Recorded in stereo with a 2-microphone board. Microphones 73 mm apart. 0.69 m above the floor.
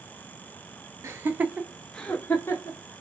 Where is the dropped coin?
I don't hear a dropped coin.